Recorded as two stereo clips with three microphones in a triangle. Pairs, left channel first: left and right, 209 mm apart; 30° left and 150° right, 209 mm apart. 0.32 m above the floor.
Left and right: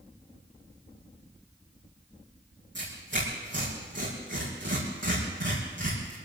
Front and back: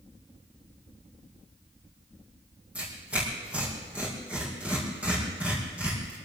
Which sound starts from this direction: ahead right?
Tearing paper, at 2.8 s.